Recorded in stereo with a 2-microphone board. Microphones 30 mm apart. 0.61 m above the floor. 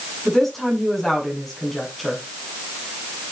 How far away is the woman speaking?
About 6.5 m.